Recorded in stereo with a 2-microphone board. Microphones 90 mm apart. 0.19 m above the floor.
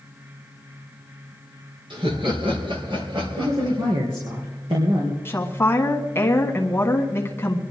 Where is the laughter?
65° right (ahead or behind), 3 m; by 3.9 s 70° right (ahead or behind), 5 m.